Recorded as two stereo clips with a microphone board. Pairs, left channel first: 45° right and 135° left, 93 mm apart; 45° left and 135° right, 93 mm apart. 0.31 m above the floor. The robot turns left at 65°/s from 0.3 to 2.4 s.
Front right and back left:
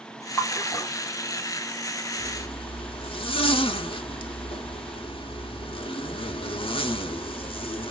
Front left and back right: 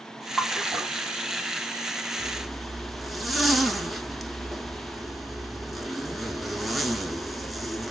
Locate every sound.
0.4 s a splash: 35° right, 1.0 m; by 0.9 s 75° right, 1.0 m
2.2 s a zipper: 30° right, 0.6 m; by 7.9 s 45° right, 0.6 m